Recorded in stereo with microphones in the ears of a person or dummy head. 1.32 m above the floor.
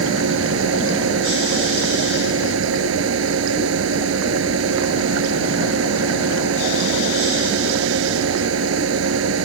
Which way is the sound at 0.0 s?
80° right.